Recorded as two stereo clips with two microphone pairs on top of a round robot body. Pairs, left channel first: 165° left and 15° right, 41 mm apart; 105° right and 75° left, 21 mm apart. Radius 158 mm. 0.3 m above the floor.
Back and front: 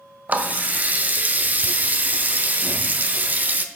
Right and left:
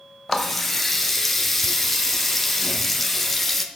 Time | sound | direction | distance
0.3 | a running tap | 20° right | 0.7 m